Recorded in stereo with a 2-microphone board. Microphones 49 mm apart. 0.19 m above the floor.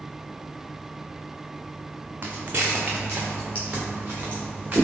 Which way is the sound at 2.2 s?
40° right (ahead or behind).